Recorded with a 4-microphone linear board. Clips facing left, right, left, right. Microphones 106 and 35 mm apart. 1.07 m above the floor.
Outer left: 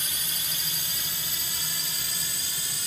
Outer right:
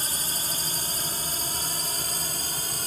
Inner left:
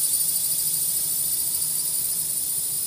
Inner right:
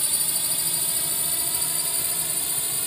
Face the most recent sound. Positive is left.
turn(degrees=-45)  # may be behind; listen again after turning